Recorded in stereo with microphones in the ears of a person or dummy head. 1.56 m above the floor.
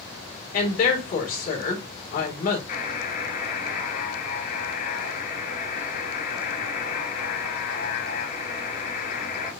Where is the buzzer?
45° left (ahead or behind), 3 m.